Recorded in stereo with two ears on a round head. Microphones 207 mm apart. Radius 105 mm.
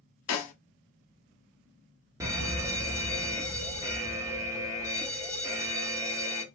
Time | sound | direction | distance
0.3 | a snare drum | 65° left (ahead or behind) | 0.7 m
2.2 | an alarm | 15° right (ahead or behind) | 0.5 m